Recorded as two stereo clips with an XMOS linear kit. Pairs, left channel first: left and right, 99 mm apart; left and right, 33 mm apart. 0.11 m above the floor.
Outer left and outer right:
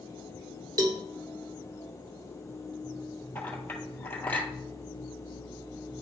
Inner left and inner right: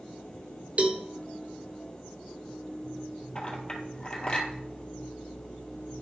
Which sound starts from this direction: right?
A cowbell, at 0.8 s.